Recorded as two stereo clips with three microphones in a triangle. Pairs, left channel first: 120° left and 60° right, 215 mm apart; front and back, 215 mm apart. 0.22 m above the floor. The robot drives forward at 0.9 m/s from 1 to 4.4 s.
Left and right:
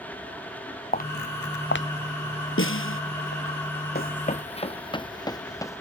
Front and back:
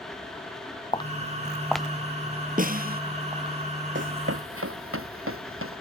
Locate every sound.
0.9 s footsteps: 70° left; by 3.5 s 115° left
2.6 s a snare drum: 130° left; by 3.0 s 135° left
4.0 s running footsteps: 155° left; by 5.8 s 165° right